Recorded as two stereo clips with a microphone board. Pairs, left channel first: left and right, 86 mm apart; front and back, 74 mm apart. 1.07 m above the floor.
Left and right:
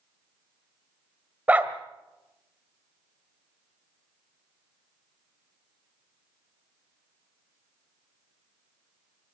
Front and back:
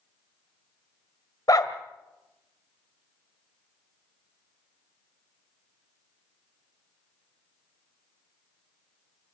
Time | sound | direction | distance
1.5 | a dog barking | 20° right | 1.4 m